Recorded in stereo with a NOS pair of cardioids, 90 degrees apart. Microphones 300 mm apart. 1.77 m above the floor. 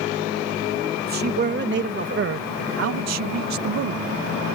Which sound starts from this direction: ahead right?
A man speaking, at 1.0 s.